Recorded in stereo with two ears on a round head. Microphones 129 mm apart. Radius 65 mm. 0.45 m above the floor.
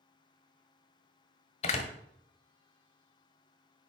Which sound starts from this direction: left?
A door slam, at 1.6 s.